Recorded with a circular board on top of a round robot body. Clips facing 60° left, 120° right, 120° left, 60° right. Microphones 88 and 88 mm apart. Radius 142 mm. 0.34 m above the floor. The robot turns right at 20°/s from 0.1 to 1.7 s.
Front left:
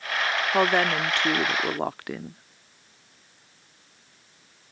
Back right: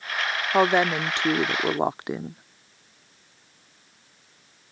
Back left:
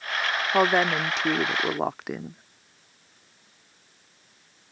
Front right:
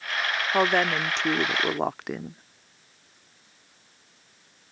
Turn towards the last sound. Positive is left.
turn(degrees=-155)